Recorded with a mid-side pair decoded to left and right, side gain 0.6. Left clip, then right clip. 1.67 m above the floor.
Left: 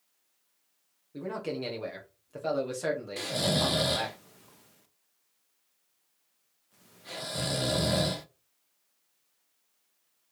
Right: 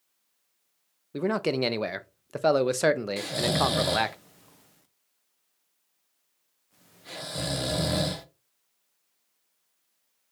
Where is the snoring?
5° right, 0.6 m.